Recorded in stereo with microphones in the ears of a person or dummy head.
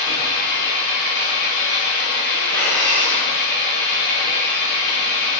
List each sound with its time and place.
0.0 s an engine running: 60° left (ahead or behind), 0.7 m
2.5 s breathing: 15° left (ahead or behind), 2.0 m